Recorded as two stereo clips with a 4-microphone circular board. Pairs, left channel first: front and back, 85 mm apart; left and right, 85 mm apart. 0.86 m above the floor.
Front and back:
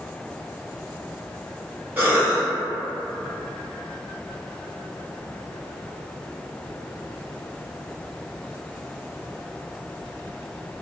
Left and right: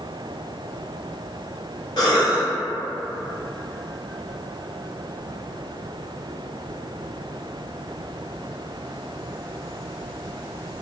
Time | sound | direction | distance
2.0 | a cough | 115° left | 0.8 m